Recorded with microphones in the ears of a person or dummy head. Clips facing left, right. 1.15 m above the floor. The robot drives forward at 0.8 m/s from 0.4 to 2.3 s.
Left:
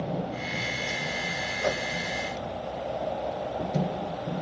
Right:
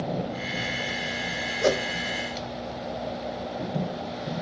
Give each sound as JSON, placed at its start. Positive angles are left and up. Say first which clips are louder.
{"t": 1.6, "sound": "a whoosh", "louder": "right 6 dB", "side_deg": -45}